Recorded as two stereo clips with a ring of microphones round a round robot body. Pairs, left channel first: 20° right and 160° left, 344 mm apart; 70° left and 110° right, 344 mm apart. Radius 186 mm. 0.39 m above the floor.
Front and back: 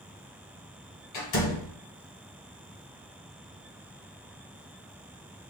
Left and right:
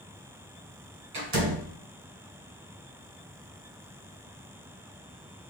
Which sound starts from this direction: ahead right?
A door slam, at 1.1 s.